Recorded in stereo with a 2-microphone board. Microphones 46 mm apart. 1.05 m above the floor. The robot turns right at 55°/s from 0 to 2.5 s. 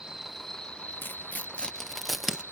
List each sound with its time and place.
0.0 s an insect: 20° right; by 2.5 s 120° left
1.0 s tearing paper: 45° left (ahead or behind); by 2.4 s 15° right (ahead or behind)